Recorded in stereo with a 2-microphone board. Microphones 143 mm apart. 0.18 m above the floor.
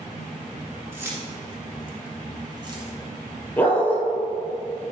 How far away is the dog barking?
About 1.6 m.